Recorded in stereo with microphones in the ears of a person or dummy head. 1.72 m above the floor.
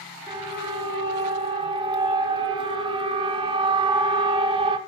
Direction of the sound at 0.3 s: 25° right (ahead or behind).